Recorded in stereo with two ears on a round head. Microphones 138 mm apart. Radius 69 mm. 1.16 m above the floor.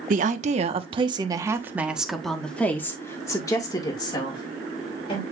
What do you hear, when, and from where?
0.1 s a woman speaking: 55° right (ahead or behind), 1.3 m; by 5.2 s 35° left (ahead or behind), 2.5 m